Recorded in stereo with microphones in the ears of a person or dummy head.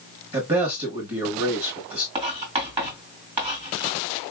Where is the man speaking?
30° right (ahead or behind), 1.8 m.